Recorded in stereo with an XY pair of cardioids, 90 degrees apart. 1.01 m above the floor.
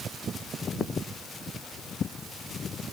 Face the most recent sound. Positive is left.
No sound to turn to.